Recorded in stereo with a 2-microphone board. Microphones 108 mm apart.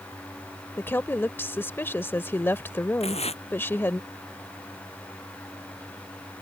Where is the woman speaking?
20° left (ahead or behind).